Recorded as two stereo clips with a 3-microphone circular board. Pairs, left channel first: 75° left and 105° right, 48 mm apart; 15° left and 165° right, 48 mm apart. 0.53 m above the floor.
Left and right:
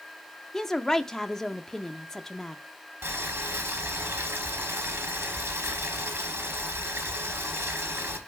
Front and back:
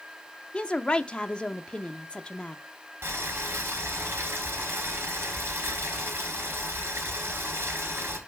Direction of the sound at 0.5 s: 5° left.